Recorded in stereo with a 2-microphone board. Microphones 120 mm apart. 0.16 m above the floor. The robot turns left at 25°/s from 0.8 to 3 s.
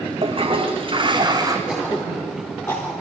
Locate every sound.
0.2 s a toilet flushing: 45° right (ahead or behind), 2 m; by 1.6 s 30° right (ahead or behind), 2 m
1.7 s throat clearing: 10° right (ahead or behind), 7.5 m; by 2.9 s 20° left (ahead or behind), 7.5 m